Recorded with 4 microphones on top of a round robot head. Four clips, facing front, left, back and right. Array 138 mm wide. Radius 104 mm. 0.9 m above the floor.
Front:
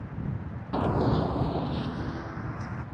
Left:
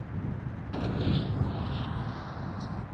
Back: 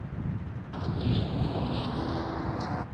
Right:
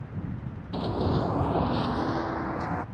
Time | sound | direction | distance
0.7 | running footsteps | 15° right | ?